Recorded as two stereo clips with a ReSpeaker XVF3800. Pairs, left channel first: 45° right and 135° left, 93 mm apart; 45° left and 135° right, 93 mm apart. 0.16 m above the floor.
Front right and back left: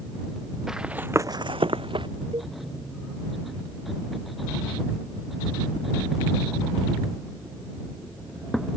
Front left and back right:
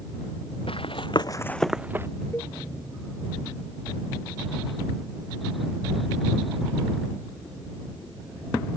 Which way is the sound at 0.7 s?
50° left.